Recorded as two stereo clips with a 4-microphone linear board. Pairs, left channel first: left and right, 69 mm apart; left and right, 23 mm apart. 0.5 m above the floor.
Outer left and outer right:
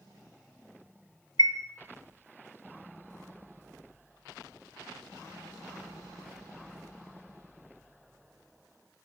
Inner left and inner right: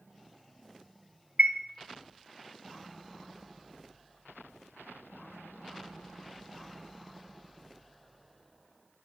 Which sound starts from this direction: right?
A chime, at 1.4 s.